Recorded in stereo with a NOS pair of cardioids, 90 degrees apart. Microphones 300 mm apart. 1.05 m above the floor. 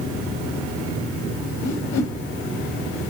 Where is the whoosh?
65° left, 1.2 m.